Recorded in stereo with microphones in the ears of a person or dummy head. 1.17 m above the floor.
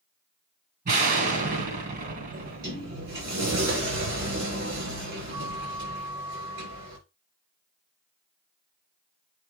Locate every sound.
0.8 s an explosion: 45° right (ahead or behind), 2.5 m
2.3 s a sliding door: 70° right (ahead or behind), 4.5 m